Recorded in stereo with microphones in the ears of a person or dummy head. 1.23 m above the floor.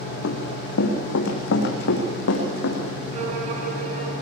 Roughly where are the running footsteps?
Left.